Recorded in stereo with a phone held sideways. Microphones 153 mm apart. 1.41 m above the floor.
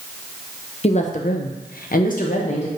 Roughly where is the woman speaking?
Left.